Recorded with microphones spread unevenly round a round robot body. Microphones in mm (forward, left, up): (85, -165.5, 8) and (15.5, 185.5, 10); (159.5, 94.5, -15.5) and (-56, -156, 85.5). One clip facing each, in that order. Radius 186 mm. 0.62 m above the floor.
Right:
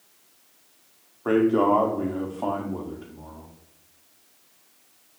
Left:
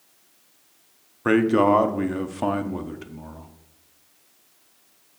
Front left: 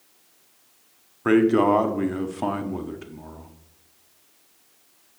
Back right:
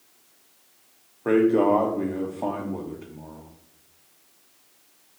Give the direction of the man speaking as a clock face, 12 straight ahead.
10 o'clock.